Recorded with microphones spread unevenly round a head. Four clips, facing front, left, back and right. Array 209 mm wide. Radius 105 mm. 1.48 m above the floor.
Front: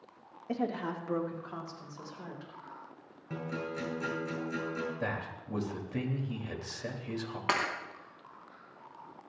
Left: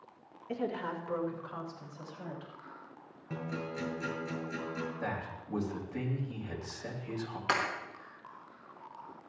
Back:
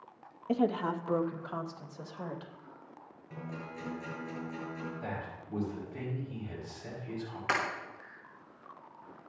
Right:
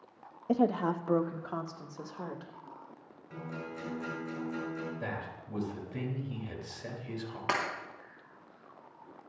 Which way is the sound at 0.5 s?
100° right.